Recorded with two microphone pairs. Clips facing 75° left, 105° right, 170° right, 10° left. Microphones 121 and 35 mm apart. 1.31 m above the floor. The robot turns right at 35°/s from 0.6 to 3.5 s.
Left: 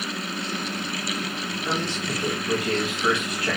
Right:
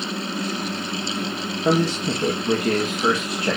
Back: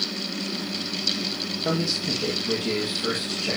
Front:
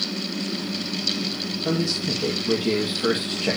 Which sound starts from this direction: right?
A man speaking, at 1.6 s.